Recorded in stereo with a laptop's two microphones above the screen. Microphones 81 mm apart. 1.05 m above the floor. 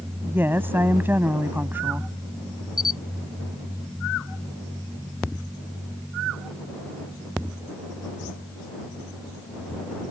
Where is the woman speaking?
25° right (ahead or behind).